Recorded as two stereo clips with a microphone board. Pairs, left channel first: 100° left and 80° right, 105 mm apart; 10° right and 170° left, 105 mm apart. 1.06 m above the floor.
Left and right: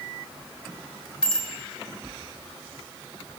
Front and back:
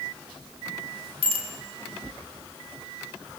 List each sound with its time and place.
1.2 s a bicycle bell: straight behind, 3 m